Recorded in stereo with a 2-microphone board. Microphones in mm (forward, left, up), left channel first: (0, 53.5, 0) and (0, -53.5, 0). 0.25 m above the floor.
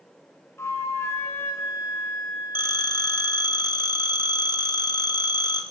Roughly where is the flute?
Left.